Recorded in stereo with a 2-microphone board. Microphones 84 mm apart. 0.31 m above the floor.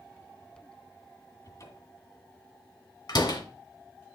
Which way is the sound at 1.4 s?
40° left (ahead or behind).